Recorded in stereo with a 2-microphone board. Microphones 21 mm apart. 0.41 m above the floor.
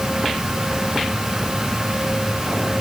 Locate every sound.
Only background noise.